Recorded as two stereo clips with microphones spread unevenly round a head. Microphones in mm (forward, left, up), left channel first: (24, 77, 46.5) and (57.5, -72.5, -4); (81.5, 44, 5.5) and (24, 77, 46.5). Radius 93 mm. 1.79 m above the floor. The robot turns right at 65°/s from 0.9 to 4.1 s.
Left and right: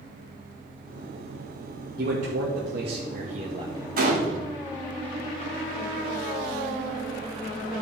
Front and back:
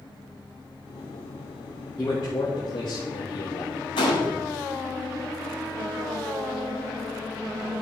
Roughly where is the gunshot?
Ahead right.